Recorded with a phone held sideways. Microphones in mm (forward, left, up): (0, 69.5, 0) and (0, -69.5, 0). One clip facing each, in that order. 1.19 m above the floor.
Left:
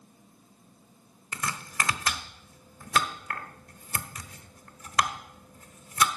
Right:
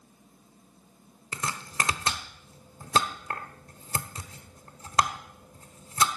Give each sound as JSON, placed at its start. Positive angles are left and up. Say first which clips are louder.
{"t": 1.3, "sound": "chopping", "louder": "right 1 dB", "side_deg": -30, "distance_m": 1.0}